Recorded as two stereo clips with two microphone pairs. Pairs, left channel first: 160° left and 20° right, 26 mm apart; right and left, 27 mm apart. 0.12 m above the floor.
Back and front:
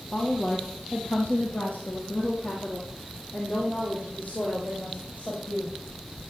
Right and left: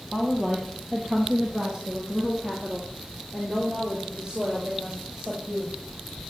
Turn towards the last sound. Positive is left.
turn(degrees=140)